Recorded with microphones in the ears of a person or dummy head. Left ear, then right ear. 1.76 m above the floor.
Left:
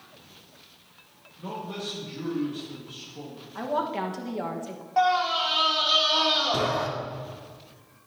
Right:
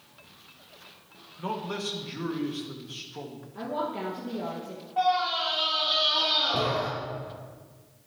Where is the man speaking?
45° right (ahead or behind), 1.6 m.